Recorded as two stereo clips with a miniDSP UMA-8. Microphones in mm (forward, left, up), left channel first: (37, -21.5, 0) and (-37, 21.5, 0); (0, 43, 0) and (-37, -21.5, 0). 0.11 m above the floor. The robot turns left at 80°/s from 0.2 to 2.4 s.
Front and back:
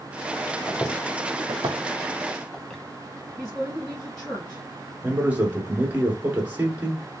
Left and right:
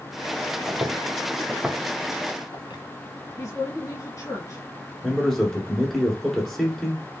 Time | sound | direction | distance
0.7 | footsteps | 80° right | 0.9 m
3.4 | a woman speaking | 50° left | 1.3 m
5.0 | a man speaking | 140° left | 1.1 m